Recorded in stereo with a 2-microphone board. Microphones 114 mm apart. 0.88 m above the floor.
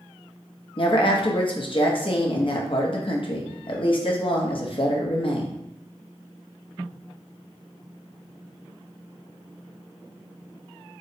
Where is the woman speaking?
50° left (ahead or behind), 0.7 m.